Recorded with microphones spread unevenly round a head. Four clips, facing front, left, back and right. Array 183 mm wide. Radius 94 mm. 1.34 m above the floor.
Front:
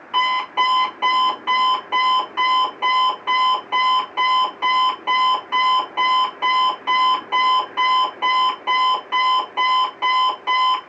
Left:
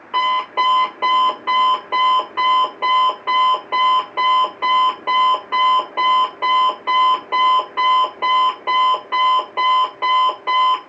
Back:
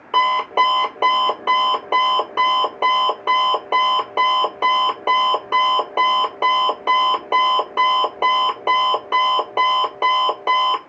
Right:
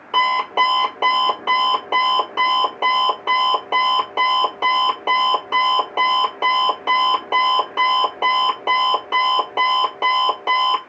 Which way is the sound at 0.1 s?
155° right.